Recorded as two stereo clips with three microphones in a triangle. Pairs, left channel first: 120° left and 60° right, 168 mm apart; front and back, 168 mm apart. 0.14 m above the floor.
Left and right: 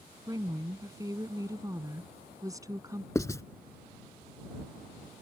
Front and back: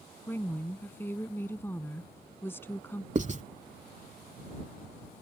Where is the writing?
Straight behind.